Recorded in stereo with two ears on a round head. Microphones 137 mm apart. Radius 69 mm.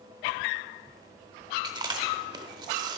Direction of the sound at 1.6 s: 30° right (ahead or behind).